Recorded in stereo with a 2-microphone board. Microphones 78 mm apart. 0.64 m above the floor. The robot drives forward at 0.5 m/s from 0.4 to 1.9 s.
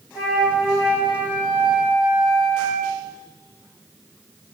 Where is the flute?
Centre (ahead or behind), 1.7 m; by 3.0 s 5° right (ahead or behind), 1.1 m.